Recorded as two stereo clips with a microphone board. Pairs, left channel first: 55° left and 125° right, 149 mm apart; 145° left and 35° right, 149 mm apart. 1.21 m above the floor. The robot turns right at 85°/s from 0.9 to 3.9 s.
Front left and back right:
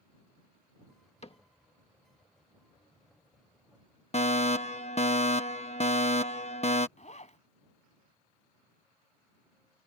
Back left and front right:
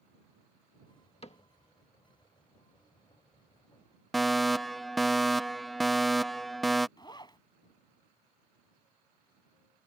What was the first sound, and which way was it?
A cupboard door, 100° left.